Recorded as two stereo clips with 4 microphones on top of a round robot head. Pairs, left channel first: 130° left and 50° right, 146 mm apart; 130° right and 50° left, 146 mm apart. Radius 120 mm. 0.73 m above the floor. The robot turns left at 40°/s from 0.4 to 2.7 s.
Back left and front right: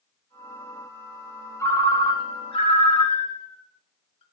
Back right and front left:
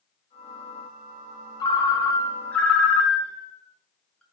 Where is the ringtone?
170° right, 0.6 m; by 4.2 s 145° left, 0.6 m.